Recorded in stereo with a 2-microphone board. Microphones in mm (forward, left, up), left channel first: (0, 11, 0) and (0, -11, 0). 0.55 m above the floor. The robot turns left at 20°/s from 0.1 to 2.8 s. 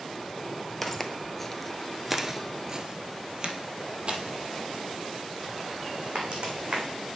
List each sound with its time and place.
0.8 s footsteps: 5° left (ahead or behind), 0.8 m; by 6.8 s 55° right (ahead or behind), 2.5 m